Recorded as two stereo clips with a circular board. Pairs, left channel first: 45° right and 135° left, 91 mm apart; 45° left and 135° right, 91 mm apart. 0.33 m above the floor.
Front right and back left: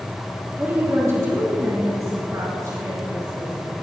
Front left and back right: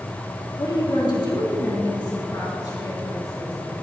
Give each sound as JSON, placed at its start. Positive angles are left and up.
{"t": 0.6, "sound": "a woman speaking", "azimuth_deg": 70, "distance_m": 2.0}